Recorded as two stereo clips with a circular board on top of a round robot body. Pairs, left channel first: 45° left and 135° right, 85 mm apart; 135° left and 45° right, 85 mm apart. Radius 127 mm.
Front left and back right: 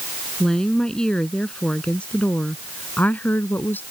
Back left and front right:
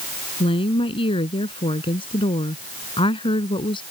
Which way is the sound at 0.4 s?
130° left.